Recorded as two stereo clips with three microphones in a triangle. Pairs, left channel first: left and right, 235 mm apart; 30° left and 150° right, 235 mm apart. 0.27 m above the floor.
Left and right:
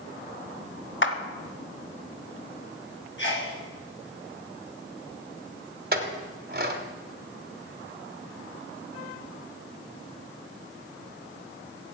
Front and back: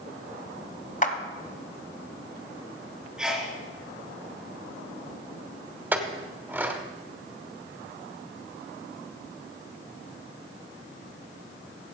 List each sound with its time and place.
1.0 s a clap: 80° left, 1.2 m
3.2 s a sneeze: 125° left, 4 m
5.9 s a clink: 70° right, 1.3 m